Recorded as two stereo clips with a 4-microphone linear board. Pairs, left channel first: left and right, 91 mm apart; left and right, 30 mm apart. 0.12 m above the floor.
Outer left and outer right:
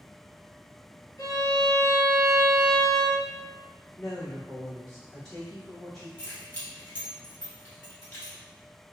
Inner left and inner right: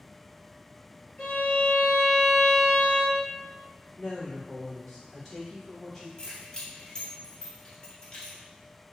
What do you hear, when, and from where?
1.2 s a violin: 35° left (ahead or behind), 1.8 m
4.0 s a woman speaking: 5° left (ahead or behind), 1.5 m
6.2 s keys jangling: 20° left (ahead or behind), 1.2 m